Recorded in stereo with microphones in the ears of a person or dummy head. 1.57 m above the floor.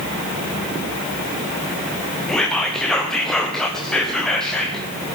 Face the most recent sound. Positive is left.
turn(degrees=5)  # may be behind; listen again after turning